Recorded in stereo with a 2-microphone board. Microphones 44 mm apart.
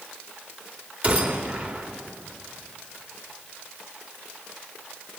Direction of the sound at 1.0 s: 35° right (ahead or behind).